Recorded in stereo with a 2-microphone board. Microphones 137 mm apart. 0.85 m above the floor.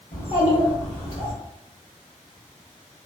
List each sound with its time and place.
0.1 s a child speaking: 75° left (ahead or behind), 1.1 m; by 1.3 s 65° left (ahead or behind), 1.4 m